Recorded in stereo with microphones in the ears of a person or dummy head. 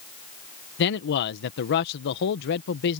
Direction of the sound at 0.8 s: 60° left (ahead or behind).